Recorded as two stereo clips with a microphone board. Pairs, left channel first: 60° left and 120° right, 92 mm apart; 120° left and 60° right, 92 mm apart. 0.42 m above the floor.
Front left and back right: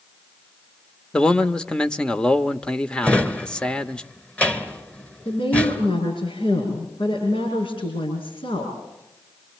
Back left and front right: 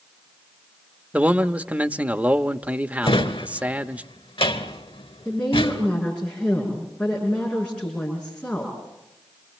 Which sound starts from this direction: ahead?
A man speaking, at 1.1 s.